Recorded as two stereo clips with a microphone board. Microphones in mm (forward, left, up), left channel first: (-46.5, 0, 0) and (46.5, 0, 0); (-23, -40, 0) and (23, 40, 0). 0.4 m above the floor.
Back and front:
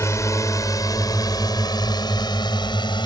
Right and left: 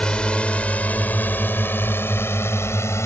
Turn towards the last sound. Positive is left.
turn(degrees=-175)